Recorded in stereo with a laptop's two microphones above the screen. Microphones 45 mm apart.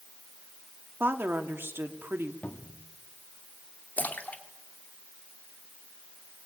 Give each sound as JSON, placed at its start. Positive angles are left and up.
{"t": 1.0, "sound": "a woman speaking", "side_deg": -55, "distance_m": 2.5}
{"t": 2.4, "sound": "a cupboard door", "side_deg": 30, "distance_m": 1.4}
{"t": 4.0, "sound": "a splash", "side_deg": 35, "distance_m": 2.5}